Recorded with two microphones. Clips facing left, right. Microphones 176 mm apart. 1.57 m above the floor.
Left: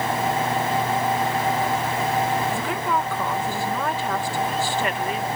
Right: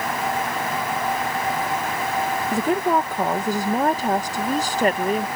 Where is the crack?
I don't hear a crack.